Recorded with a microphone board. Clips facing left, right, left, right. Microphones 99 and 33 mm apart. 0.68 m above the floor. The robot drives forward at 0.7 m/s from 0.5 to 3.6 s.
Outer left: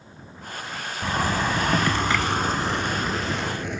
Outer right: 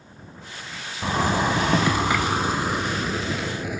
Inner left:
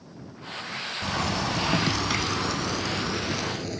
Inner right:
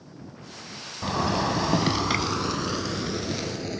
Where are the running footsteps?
I don't hear running footsteps.